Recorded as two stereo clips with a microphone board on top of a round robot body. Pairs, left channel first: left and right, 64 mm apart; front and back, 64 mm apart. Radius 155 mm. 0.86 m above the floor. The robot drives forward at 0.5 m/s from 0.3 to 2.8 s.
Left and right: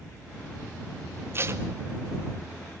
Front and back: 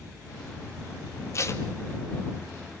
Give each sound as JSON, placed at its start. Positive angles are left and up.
{"t": 1.3, "sound": "tape being pulled", "azimuth_deg": -40, "distance_m": 2.5}